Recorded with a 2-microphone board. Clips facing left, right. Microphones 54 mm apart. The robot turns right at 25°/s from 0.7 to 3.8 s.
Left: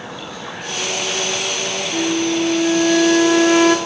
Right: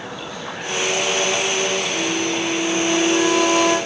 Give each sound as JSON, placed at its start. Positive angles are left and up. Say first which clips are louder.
{"t": 1.9, "sound": "a flute", "louder": "left 3 dB", "azimuth_deg": 75, "distance_m": 3.0}